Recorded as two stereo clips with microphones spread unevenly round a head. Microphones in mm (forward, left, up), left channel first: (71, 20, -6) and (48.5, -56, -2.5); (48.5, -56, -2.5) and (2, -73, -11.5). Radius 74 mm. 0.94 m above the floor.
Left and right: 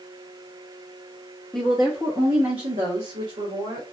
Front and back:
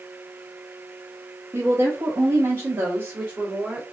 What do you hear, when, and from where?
1.5 s a woman speaking: 155° left, 1.1 m; by 3.8 s 105° right, 2 m